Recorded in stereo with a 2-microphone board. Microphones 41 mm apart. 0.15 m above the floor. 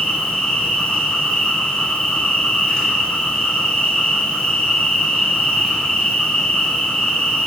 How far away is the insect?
About 1.5 m.